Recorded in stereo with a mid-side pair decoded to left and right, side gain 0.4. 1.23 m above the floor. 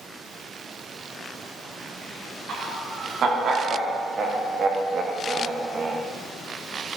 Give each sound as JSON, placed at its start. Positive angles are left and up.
{"t": 2.5, "sound": "laughter", "azimuth_deg": -65, "distance_m": 4.5}